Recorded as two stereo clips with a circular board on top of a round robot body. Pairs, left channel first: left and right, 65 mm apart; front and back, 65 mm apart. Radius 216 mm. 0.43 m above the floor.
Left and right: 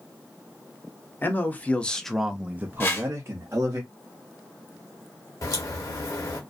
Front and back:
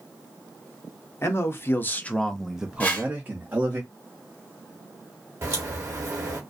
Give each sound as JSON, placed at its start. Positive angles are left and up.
{"t": 1.2, "sound": "a man speaking", "azimuth_deg": 40, "distance_m": 1.0}
{"t": 2.8, "sound": "a whoosh", "azimuth_deg": 55, "distance_m": 1.3}
{"t": 5.4, "sound": "a crack", "azimuth_deg": 130, "distance_m": 0.9}